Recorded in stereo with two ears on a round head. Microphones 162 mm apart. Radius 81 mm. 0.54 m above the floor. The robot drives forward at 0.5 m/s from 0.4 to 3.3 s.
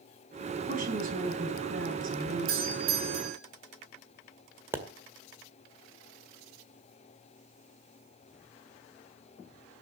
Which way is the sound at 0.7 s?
40° right (ahead or behind).